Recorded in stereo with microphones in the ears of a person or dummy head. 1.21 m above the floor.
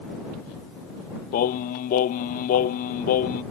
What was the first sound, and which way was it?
Singing, 50° left (ahead or behind).